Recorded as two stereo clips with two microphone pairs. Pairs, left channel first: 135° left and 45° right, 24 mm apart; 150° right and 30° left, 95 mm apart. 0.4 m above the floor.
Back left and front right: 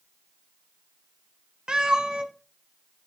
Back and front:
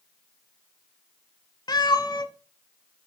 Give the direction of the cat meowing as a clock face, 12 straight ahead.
4 o'clock.